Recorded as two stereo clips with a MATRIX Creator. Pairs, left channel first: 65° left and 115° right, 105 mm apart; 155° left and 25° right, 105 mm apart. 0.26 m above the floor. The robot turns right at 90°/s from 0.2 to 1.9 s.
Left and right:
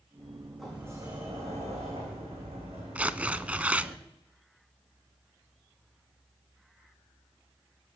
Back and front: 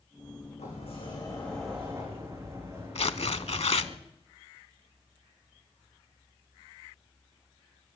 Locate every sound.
0.6 s a sliding door: 155° left, 6 m; by 4.0 s 85° right, 6 m
3.0 s tearing paper: 170° left, 0.6 m